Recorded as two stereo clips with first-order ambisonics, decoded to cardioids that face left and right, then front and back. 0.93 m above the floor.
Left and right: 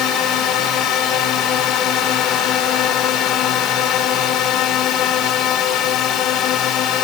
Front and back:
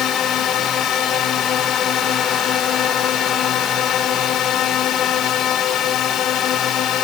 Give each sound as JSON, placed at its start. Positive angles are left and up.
{"t": 0.0, "sound": "a drone", "azimuth_deg": 45}